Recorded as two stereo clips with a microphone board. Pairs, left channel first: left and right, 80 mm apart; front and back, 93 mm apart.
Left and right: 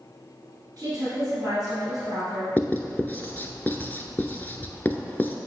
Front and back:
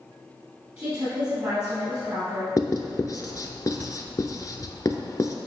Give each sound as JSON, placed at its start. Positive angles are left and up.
{"t": 0.8, "sound": "a woman speaking", "azimuth_deg": -135, "distance_m": 2.5}
{"t": 2.6, "sound": "writing", "azimuth_deg": 30, "distance_m": 0.6}